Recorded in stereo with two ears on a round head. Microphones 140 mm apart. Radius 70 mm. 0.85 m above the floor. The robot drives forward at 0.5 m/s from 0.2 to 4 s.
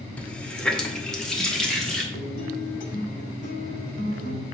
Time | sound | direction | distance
0.2 | a running tap | 10° left (ahead or behind) | 0.6 m
2.1 | a guitar | 60° left (ahead or behind) | 1.5 m